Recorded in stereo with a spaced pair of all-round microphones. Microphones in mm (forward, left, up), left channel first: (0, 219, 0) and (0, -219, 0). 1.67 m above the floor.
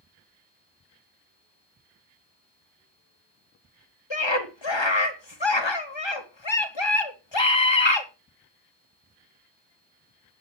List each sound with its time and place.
4.1 s a scream: 80° left, 2.5 m